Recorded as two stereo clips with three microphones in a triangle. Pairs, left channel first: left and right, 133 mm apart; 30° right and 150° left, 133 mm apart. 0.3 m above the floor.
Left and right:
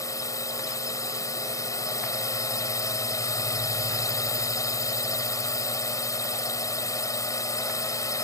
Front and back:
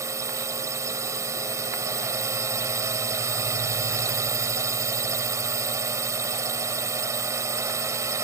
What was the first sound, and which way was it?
A drone, 115° left.